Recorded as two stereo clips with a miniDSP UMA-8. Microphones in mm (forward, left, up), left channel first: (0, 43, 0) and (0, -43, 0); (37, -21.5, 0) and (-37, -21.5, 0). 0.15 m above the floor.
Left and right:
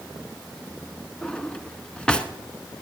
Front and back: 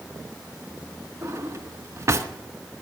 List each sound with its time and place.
1.2 s a drawer: 165° left, 0.8 m